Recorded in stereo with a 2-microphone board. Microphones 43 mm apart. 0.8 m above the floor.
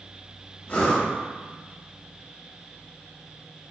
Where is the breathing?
40° left (ahead or behind), 1.3 m.